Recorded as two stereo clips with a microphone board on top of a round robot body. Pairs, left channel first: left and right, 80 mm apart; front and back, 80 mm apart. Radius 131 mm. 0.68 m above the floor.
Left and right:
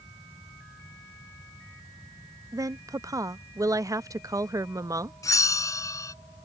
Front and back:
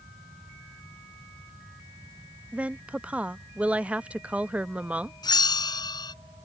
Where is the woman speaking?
110° right.